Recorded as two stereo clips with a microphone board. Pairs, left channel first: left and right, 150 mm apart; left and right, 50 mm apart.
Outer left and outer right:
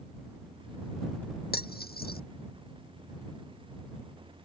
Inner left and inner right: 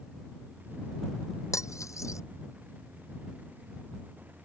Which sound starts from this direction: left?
Cutlery clinking, at 1.5 s.